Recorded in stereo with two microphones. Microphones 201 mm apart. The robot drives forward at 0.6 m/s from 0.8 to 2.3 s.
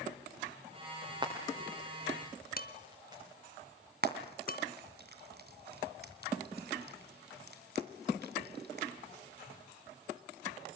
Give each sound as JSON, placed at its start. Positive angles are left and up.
{"t": 1.2, "sound": "frying", "side_deg": -20, "distance_m": 7.0}
{"t": 2.6, "sound": "dishes clattering", "side_deg": 50, "distance_m": 2.0}
{"t": 4.0, "sound": "frying", "side_deg": -55, "distance_m": 2.5}